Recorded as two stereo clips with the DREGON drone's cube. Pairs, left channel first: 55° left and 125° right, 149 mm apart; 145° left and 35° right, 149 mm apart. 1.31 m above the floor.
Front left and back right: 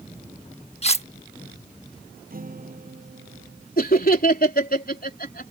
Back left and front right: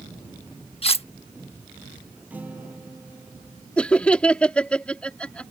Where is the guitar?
115° right.